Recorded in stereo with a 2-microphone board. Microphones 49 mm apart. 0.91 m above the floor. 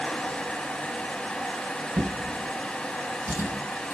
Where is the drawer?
80° right, 2.5 m.